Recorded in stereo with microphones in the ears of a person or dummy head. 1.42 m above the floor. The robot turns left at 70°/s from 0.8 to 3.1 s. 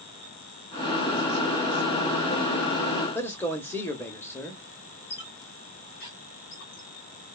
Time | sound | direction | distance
3.1 | a man speaking | 15° left (ahead or behind) | 1.0 m
5.1 | a squeak | 55° left (ahead or behind) | 1.1 m